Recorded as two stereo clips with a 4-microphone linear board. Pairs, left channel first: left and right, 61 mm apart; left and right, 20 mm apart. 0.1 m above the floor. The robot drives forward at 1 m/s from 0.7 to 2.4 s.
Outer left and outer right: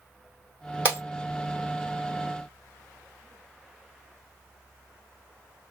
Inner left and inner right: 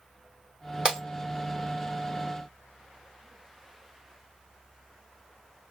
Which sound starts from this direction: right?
Breaking glass, at 0.8 s.